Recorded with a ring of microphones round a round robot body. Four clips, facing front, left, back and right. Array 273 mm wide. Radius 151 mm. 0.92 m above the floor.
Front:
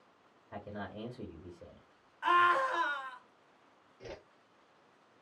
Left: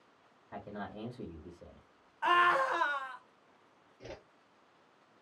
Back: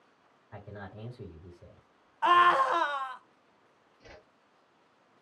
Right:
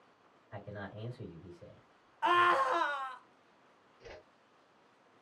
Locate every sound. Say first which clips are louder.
0.5 s a man speaking: left 2 dB, front 2 dB; 35° left, 1.9 m
2.2 s a scream: even, back 5 dB; 175° left, 1.0 m
4.0 s a whoosh: left 4 dB, front 6 dB; 45° left, 0.8 m